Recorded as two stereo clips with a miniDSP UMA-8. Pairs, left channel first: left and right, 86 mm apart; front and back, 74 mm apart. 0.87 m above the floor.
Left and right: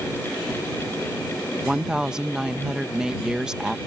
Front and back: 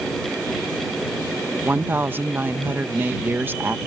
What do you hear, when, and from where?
1.6 s a woman speaking: 165° right